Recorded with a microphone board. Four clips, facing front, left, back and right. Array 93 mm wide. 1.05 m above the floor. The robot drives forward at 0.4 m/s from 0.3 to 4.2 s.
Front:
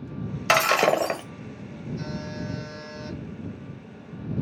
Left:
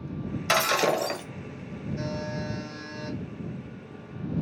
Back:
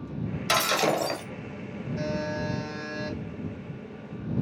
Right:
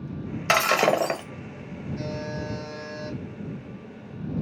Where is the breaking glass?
30° right, 1.1 m; by 1.2 s 50° right, 0.9 m.